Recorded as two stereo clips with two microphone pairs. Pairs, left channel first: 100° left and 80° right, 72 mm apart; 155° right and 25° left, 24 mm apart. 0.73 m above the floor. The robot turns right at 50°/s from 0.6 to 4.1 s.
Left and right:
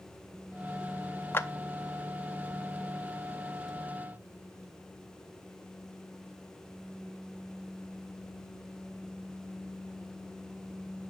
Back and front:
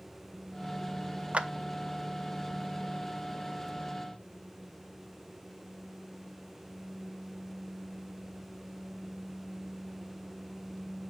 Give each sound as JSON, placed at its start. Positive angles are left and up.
{"t": 1.3, "sound": "a clap", "azimuth_deg": 45, "distance_m": 0.6}